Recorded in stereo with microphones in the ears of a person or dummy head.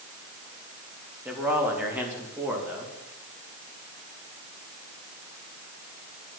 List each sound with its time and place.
1.2 s a man speaking: 10° right (ahead or behind), 3 m